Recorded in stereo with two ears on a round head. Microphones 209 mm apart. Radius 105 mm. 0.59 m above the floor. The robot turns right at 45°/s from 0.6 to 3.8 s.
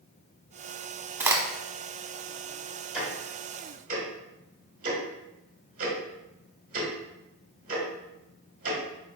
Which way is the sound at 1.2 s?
10° right (ahead or behind).